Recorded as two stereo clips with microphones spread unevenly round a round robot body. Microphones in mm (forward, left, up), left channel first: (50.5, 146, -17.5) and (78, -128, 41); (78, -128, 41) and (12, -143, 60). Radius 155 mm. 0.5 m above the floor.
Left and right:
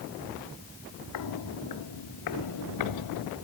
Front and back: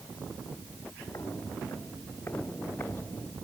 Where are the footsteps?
90° left.